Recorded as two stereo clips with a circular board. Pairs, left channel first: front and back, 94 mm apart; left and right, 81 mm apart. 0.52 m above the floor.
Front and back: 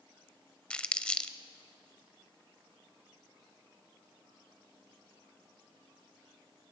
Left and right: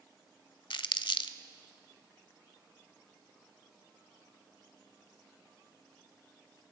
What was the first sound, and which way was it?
Crumpling, 80° left.